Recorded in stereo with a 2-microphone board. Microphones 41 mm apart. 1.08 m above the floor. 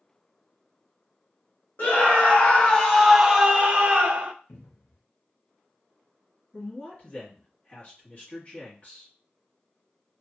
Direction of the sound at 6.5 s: 50° left (ahead or behind).